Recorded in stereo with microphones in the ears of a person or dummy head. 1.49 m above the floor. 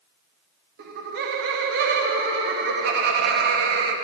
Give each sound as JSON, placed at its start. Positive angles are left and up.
{"t": 0.8, "sound": "laughter", "side_deg": -60, "distance_m": 0.7}